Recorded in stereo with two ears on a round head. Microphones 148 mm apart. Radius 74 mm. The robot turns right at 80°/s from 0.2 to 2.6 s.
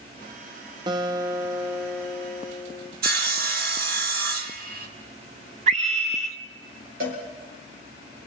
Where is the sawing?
60° right (ahead or behind), 1.7 m.